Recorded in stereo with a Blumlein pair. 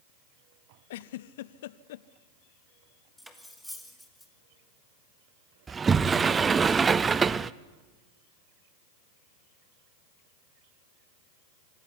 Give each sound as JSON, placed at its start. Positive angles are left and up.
{"t": 0.9, "sound": "a giggle", "azimuth_deg": 55, "distance_m": 0.6}
{"t": 3.2, "sound": "cutlery clinking", "azimuth_deg": 0, "distance_m": 2.0}
{"t": 5.7, "sound": "a sliding door", "azimuth_deg": -15, "distance_m": 0.5}